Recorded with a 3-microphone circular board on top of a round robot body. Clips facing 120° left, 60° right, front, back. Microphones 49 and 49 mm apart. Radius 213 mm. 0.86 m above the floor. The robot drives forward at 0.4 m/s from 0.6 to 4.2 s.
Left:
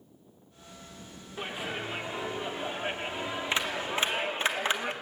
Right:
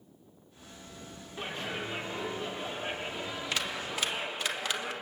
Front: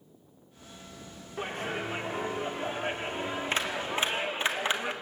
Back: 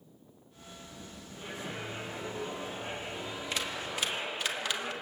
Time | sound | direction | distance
1.4 | a clap | 40° left | 2.5 m